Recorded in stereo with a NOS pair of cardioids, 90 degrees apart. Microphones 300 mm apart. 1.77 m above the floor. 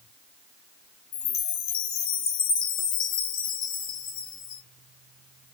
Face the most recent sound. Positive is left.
turn(degrees=60)